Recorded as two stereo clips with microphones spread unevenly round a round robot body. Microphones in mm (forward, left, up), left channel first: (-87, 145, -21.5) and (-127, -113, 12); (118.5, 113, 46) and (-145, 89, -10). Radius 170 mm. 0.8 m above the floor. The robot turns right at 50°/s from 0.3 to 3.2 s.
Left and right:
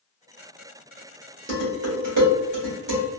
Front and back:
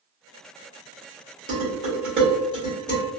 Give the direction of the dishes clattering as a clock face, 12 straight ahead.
5 o'clock.